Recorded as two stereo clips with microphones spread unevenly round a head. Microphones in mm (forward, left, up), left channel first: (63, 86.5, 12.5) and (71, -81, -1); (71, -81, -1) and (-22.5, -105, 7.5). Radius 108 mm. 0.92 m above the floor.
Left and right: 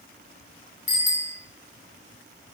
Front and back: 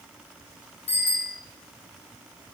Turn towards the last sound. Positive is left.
turn(degrees=55)